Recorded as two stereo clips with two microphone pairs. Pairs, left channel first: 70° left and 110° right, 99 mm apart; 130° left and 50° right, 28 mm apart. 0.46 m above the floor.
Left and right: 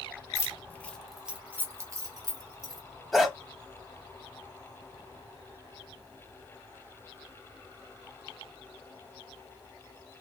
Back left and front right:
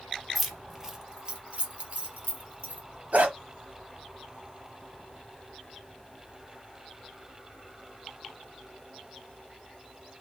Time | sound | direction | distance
0.3 | keys jangling | 45° left | 0.8 m
3.1 | a dog barking | 20° right | 0.9 m